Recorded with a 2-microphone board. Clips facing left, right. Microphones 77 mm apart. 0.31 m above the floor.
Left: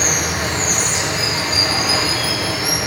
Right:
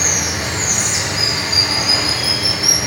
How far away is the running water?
About 1.8 m.